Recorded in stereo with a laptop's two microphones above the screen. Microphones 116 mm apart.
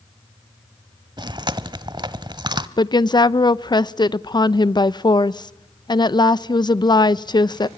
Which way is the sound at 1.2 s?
40° right (ahead or behind).